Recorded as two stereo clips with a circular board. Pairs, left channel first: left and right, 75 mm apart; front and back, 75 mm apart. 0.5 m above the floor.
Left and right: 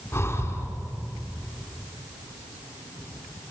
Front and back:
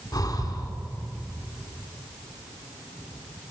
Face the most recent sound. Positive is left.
turn(degrees=30)